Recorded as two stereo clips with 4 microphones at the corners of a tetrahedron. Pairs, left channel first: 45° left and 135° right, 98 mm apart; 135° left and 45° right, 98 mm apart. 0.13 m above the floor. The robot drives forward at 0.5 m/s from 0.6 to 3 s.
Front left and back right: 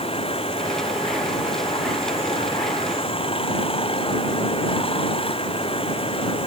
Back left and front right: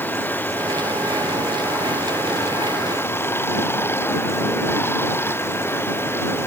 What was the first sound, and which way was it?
Running water, 65° left.